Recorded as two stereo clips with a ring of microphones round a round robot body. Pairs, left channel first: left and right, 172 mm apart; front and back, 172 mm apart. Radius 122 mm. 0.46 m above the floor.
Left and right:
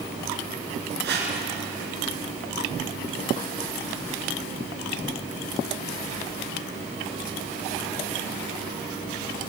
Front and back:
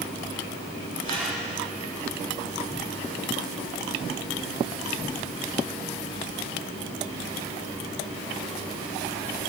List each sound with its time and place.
1.0 s a whoosh: 75° right, 4 m